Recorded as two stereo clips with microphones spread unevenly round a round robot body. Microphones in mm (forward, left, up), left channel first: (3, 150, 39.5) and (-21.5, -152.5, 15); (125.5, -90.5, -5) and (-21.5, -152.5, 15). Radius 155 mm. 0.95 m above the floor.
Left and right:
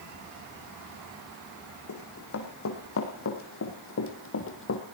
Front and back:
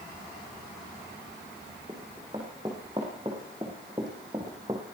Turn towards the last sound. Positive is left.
turn(degrees=130)